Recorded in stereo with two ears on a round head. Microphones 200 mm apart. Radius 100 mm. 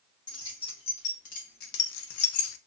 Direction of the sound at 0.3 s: 20° left (ahead or behind).